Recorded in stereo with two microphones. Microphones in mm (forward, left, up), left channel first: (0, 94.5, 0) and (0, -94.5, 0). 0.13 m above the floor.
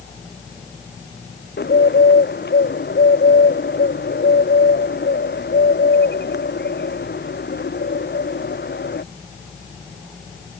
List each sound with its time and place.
1.6 s a bird: 70° left (ahead or behind)